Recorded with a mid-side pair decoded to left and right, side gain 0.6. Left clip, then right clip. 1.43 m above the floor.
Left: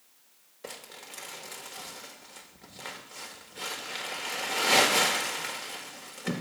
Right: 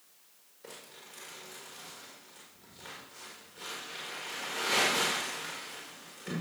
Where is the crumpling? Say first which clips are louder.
Left 6 dB; 45° left, 1.5 m.